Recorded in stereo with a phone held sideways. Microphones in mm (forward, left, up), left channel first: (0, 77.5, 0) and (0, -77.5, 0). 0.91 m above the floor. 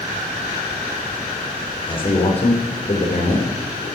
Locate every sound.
1.9 s a man speaking: 35° left (ahead or behind), 3.5 m; by 3.9 s 65° left (ahead or behind), 3.5 m